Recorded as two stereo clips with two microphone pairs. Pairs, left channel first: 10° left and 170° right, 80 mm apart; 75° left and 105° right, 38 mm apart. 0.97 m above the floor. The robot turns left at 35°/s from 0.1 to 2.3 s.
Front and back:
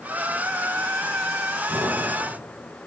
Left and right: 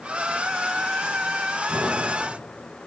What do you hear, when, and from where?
1.7 s an explosion: 115° right, 4 m; by 2.3 s 135° right, 4 m